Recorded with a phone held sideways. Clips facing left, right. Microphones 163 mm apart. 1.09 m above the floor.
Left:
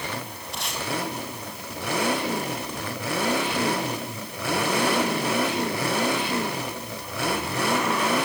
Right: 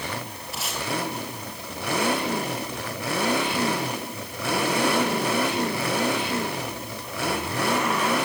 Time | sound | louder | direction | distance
0.5 | tape being pulled | even | 5° right (ahead or behind) | 5 m